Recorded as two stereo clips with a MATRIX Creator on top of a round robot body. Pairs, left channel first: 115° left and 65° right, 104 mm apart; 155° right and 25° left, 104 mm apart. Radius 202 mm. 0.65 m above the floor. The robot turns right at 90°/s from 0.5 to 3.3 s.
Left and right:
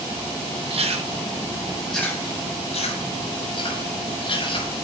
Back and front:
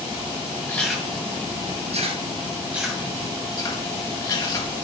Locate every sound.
0.7 s chewing: 85° right, 7 m; by 4.8 s 150° left, 7 m